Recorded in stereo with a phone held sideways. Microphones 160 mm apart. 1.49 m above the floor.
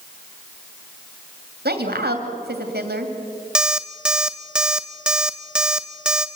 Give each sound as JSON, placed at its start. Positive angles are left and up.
{"t": 1.6, "sound": "a woman speaking", "side_deg": -85, "distance_m": 2.5}
{"t": 3.5, "sound": "an alarm clock", "side_deg": -5, "distance_m": 0.9}